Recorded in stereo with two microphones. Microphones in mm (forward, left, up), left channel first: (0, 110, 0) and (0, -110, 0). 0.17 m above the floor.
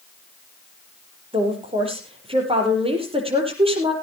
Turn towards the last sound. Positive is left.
turn(degrees=-25)  # may be behind; listen again after turning